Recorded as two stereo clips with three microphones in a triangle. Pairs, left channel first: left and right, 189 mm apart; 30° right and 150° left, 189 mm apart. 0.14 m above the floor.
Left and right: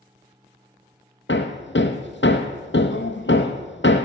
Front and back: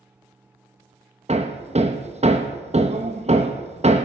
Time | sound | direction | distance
1.3 | hammering | 95° left | 1.1 m